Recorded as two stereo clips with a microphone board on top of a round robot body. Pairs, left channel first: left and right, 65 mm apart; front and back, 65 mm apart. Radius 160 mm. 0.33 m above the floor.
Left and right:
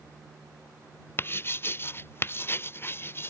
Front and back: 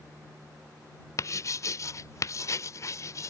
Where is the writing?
40° left.